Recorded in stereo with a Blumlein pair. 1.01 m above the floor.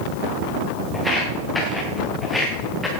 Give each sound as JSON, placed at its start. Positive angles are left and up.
{"t": 0.9, "sound": "footsteps", "azimuth_deg": 5, "distance_m": 7.5}